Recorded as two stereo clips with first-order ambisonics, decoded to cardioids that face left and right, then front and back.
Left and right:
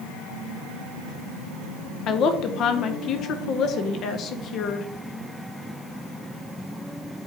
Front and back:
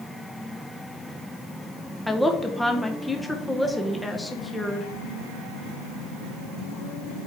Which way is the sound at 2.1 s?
85° left.